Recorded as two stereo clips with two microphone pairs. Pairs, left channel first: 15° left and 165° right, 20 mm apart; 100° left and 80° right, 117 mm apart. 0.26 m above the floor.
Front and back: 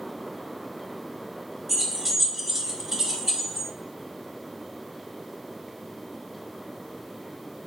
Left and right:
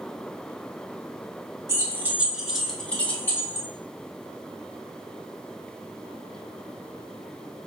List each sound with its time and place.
1.7 s keys jangling: 90° right, 1.0 m; by 3.7 s 140° left, 1.1 m